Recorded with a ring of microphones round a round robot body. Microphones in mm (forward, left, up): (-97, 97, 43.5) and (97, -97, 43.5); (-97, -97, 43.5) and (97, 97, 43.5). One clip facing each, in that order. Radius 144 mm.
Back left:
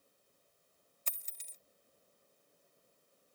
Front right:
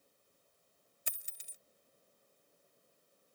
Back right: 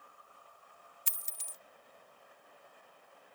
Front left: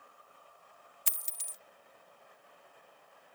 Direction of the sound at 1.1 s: 30° left.